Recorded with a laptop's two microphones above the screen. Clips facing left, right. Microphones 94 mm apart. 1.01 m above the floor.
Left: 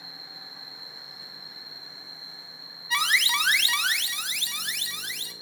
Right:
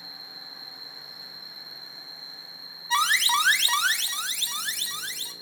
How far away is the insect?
About 1.3 m.